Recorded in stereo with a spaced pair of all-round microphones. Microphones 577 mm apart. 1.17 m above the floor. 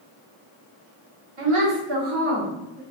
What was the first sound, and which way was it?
A woman speaking, 70° right (ahead or behind).